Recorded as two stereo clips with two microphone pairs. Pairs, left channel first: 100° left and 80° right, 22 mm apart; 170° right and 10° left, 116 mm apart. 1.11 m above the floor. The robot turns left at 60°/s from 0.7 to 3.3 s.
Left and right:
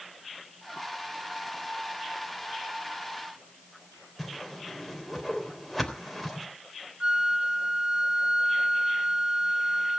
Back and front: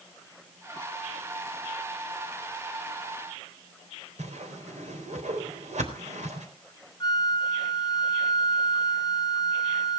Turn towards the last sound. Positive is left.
turn(degrees=-115)